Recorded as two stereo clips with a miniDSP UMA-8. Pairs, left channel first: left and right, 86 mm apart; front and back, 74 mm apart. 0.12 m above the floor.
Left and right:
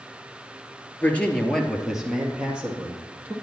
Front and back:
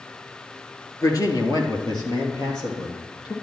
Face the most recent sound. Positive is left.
turn(degrees=-20)